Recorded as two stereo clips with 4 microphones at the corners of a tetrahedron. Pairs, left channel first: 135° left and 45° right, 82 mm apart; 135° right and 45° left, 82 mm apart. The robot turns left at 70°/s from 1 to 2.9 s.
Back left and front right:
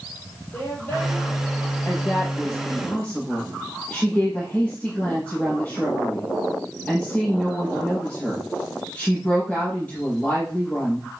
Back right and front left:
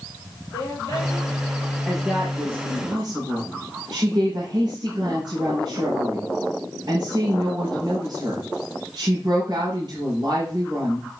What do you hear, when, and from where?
0.5 s a woman speaking: 160° right, 6 m; by 2.9 s 70° left, 6 m
1.9 s a woman speaking: 135° left, 6 m; by 11.1 s 60° left, 6 m